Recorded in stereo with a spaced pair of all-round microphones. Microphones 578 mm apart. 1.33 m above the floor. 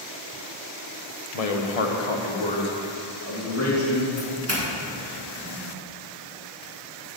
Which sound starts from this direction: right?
A doorbell, at 4.2 s.